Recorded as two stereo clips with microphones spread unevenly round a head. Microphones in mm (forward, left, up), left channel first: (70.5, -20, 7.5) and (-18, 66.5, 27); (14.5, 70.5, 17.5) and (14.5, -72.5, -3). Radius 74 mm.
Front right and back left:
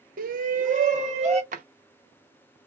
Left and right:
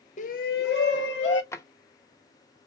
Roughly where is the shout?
Behind left.